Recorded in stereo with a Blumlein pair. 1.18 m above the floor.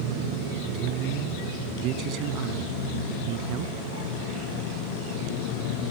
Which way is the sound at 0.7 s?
40° right.